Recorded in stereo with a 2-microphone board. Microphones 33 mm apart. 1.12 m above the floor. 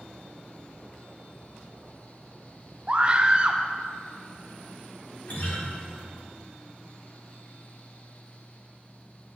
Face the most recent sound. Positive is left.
turn(degrees=65)  # may be behind; listen again after turning